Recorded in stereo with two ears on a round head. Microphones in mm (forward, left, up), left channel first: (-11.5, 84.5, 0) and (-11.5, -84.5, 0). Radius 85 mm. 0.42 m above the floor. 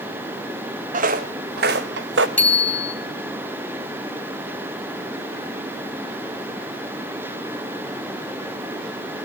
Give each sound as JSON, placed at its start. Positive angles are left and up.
{"t": 0.9, "sound": "footsteps", "side_deg": -40, "distance_m": 1.7}
{"t": 2.4, "sound": "a bicycle bell", "side_deg": 5, "distance_m": 3.0}